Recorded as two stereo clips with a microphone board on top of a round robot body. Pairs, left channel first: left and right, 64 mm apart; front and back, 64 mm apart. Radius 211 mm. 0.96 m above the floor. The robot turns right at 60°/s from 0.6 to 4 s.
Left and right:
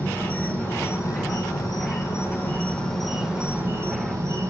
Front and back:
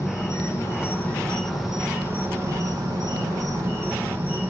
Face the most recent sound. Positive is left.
turn(degrees=-125)